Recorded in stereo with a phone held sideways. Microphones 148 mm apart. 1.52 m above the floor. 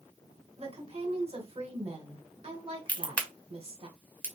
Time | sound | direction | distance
0.6 | a woman speaking | 40° right (ahead or behind) | 1.1 m
2.9 | a crack | 10° left (ahead or behind) | 0.8 m